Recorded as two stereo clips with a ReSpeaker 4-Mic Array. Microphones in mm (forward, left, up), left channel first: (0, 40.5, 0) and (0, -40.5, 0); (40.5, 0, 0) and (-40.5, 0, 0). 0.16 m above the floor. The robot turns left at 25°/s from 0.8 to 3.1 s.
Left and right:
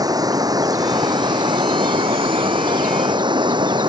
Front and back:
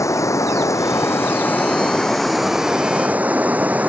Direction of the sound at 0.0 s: 50° right.